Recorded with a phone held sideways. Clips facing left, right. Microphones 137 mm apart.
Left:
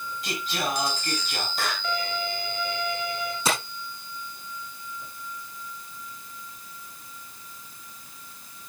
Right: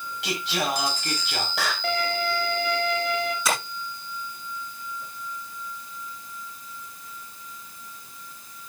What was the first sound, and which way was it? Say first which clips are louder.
Singing: right 3 dB; 80° right.